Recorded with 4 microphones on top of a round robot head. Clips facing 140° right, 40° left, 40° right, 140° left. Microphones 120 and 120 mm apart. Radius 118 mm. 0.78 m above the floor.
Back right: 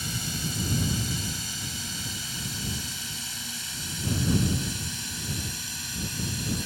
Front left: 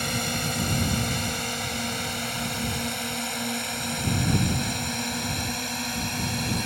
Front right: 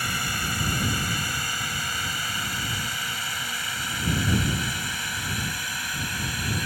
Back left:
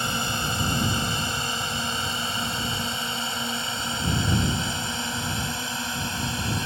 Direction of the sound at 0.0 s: 70° left.